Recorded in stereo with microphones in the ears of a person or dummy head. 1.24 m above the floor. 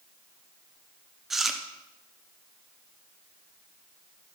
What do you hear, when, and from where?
1.3 s chewing: 10° right (ahead or behind), 0.5 m